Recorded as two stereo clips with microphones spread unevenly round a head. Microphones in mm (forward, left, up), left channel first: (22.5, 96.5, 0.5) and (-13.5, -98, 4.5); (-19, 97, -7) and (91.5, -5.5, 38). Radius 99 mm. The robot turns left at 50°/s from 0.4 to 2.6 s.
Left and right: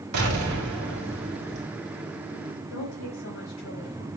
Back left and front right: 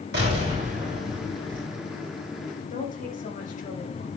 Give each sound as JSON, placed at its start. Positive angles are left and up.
{"t": 0.1, "sound": "an explosion", "azimuth_deg": -85, "distance_m": 3.0}
{"t": 2.7, "sound": "a woman speaking", "azimuth_deg": 105, "distance_m": 4.5}